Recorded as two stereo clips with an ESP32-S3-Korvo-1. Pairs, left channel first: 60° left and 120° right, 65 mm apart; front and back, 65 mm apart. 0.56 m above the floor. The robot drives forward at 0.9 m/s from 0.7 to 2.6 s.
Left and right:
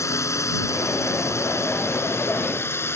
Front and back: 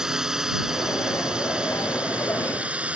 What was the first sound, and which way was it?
A drone, 100° left.